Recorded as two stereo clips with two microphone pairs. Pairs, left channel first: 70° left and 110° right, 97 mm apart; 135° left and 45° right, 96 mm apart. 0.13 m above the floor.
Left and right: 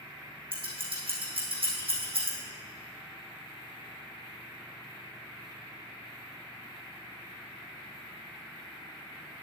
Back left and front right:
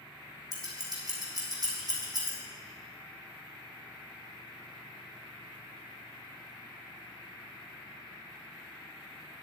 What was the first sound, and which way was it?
Scissors, 90° right.